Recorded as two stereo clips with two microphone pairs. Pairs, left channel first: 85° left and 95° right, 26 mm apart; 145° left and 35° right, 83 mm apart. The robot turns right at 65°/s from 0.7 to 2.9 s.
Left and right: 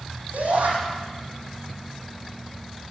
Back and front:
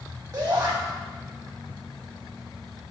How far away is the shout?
About 6 m.